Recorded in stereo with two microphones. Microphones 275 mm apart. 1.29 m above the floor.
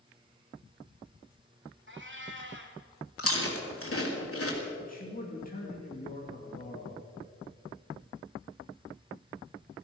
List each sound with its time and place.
1.9 s a cat meowing: 45° right (ahead or behind), 1.6 m
3.2 s chewing: 55° left (ahead or behind), 3 m
4.8 s a man speaking: 30° left (ahead or behind), 2.5 m